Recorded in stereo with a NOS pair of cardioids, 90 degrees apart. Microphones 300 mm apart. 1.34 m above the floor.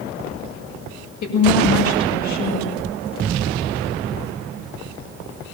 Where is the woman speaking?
65° left, 7.5 m.